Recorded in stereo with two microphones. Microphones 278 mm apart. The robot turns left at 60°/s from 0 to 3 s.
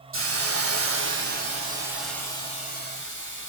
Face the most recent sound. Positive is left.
turn(degrees=125)